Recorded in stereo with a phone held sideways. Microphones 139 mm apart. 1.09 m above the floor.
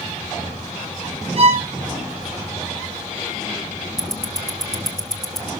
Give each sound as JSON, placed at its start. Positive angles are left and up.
{"t": 1.4, "sound": "a violin", "side_deg": -45, "distance_m": 1.9}
{"t": 4.0, "sound": "ticking", "side_deg": 5, "distance_m": 1.2}